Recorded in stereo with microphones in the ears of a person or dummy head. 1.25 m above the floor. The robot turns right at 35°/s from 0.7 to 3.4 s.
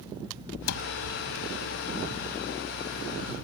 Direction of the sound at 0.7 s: 85° left.